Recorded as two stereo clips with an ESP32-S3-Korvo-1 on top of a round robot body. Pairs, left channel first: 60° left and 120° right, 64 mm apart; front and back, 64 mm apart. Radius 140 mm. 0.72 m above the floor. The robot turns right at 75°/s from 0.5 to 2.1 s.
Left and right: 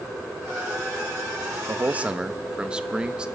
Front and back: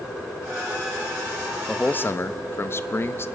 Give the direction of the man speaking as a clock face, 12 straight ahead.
3 o'clock.